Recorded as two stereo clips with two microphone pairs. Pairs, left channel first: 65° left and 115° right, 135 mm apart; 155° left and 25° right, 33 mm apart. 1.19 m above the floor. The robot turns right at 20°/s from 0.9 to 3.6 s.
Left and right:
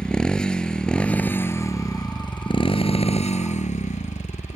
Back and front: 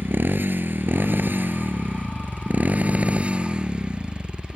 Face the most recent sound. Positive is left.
turn(degrees=35)